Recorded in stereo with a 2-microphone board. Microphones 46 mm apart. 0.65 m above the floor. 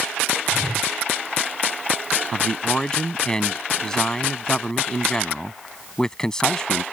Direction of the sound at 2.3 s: 15° left (ahead or behind).